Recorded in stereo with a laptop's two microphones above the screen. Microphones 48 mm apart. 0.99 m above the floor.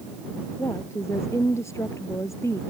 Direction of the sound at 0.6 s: 90° left.